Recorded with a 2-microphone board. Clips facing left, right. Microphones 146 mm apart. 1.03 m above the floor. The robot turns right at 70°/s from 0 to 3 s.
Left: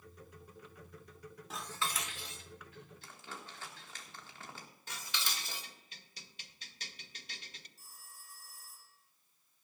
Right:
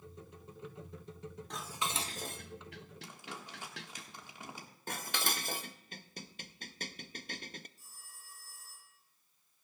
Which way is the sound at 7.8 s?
80° left.